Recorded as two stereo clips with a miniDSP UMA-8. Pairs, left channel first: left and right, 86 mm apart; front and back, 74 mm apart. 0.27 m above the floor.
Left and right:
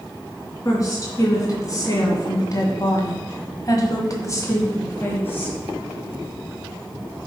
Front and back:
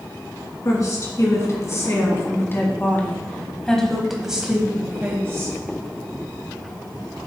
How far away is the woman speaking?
About 3 m.